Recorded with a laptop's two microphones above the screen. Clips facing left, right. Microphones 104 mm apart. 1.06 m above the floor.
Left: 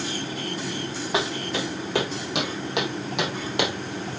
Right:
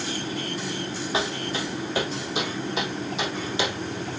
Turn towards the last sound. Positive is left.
turn(degrees=55)  # may be behind; listen again after turning